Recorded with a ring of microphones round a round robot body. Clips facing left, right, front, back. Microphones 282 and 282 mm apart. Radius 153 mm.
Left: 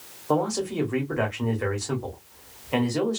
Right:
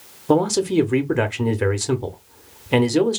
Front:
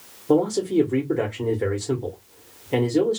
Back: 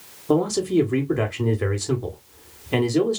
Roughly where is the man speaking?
Right.